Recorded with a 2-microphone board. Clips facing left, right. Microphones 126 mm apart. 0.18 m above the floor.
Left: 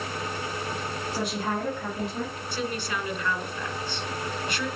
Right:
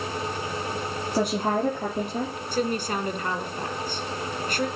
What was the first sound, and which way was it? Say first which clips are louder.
A woman speaking: right 6 dB; 50° right (ahead or behind).